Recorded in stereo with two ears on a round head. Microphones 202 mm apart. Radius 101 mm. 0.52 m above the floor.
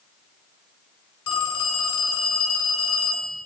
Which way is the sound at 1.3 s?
70° left (ahead or behind).